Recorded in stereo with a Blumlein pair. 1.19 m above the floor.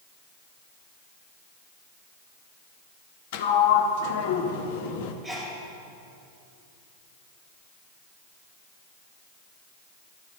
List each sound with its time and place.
3.3 s a sliding door: 50° left, 0.7 m
5.2 s a sneeze: 5° right, 2.0 m